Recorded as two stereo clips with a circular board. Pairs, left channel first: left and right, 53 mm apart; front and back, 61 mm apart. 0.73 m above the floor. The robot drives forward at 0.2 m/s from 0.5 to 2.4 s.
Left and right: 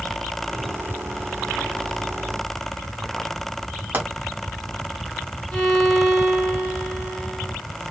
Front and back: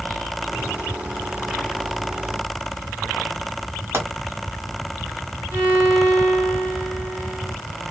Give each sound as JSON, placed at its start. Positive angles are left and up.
{"t": 3.9, "sound": "a pop", "azimuth_deg": -140, "distance_m": 1.6}
{"t": 5.5, "sound": "a violin", "azimuth_deg": 155, "distance_m": 1.7}